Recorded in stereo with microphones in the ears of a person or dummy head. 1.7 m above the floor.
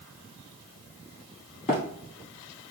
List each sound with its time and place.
1.7 s running footsteps: 35° left (ahead or behind), 2.0 m